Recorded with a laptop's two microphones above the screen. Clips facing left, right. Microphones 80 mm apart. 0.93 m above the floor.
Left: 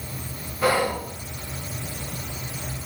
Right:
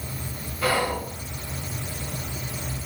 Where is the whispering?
20° left (ahead or behind), 0.7 m.